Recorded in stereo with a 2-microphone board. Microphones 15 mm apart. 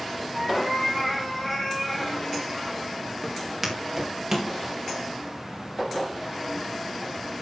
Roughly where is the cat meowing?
Centre.